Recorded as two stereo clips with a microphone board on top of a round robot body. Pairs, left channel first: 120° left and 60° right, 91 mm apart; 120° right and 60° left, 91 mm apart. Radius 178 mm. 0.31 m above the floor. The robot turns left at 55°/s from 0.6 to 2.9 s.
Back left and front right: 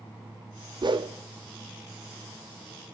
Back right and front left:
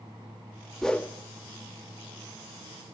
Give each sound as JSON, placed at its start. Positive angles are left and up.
{"t": 0.8, "sound": "a whoosh", "azimuth_deg": -35, "distance_m": 0.9}